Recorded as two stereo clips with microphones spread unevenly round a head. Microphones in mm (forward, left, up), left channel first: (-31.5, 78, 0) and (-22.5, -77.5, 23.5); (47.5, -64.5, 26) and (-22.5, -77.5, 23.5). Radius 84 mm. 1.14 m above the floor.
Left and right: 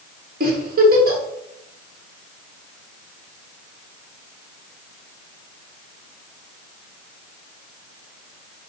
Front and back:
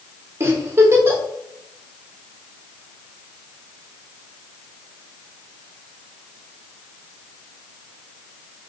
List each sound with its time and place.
0.4 s a giggle: 115° right, 1.0 m